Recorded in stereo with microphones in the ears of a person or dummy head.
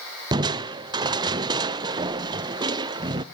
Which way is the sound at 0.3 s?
20° right (ahead or behind).